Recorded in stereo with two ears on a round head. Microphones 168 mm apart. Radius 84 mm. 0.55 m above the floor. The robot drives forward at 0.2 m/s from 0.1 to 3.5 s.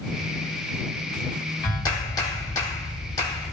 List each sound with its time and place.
1.6 s a clap: 20° left (ahead or behind), 1.4 m